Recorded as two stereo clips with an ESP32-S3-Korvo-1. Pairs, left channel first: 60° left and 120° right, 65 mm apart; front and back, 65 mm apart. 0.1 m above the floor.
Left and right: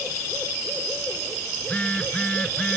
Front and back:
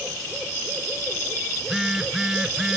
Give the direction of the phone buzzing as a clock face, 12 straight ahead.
9 o'clock.